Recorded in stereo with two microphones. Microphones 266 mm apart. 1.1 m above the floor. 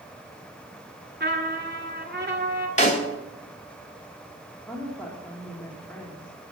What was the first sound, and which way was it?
A trumpet, 40° right (ahead or behind).